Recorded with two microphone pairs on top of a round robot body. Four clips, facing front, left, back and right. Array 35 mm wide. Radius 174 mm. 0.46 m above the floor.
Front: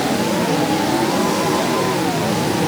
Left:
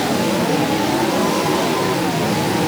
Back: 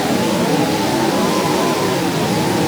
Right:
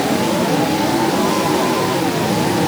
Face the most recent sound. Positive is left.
No sound to turn to.